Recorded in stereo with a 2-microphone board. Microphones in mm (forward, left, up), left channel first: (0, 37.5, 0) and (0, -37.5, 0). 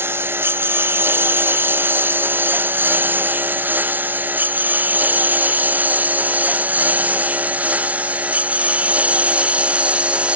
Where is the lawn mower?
30° right (ahead or behind); by 10.4 s 15° right (ahead or behind).